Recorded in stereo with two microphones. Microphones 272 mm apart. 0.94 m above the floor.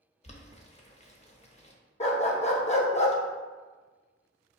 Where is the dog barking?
25° left (ahead or behind), 0.6 m.